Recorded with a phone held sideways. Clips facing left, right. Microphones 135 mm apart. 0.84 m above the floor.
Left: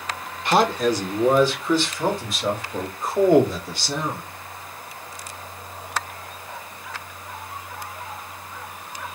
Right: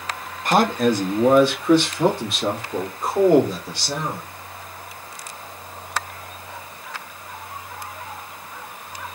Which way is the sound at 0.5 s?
45° right (ahead or behind).